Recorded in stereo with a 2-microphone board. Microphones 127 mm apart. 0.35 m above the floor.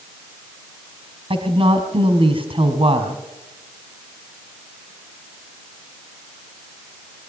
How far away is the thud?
I don't hear a thud.